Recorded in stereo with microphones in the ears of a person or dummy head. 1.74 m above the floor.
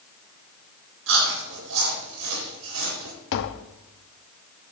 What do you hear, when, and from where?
1.1 s chewing: 75° right (ahead or behind), 4.5 m
3.3 s tapping: 60° left (ahead or behind), 0.8 m